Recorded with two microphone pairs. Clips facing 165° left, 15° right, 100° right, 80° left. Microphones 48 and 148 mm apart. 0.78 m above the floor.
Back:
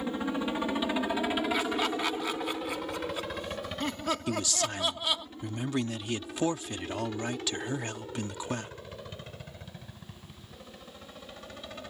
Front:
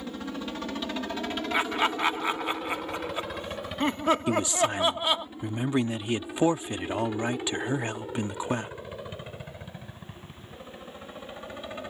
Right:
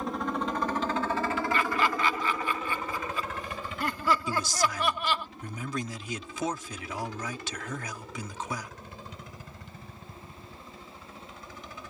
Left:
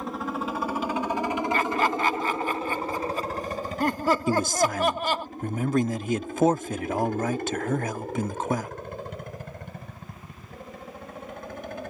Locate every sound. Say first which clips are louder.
0.0 s a helicopter: back 4 dB, even; 170° left; by 11.9 s 55° left
1.5 s laughter: front 3 dB, left 4 dB; 40° left
4.3 s a man speaking: front 6 dB, left 6 dB; 50° left